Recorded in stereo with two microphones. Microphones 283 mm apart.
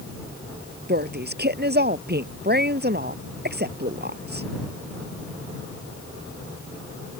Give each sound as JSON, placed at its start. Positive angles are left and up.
{"t": 0.9, "sound": "a woman speaking", "side_deg": -35}